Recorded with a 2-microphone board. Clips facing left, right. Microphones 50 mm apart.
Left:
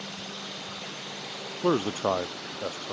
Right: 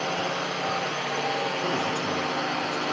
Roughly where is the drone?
Right.